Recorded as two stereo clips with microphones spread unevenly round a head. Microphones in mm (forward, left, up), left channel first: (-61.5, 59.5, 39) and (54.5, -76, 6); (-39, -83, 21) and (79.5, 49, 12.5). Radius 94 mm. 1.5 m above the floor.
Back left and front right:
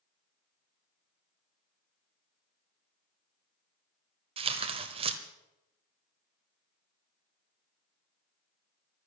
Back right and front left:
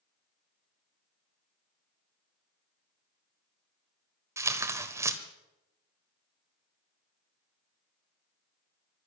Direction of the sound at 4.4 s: 10° right.